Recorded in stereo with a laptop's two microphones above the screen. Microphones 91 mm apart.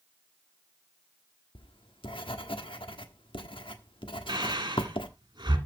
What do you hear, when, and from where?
1.6 s writing: 65° left (ahead or behind), 1.3 m
4.3 s breathing: 50° right (ahead or behind), 1.8 m